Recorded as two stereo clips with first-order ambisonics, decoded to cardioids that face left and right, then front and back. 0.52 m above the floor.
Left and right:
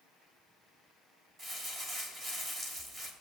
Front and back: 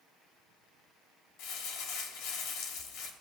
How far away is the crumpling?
About 1.3 m.